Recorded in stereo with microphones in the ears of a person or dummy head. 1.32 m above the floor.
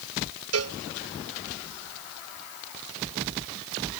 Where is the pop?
I don't hear a pop.